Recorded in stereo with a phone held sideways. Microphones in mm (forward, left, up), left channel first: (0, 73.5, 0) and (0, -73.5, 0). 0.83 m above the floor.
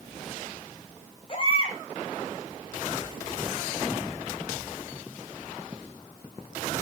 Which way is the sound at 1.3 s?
40° left (ahead or behind).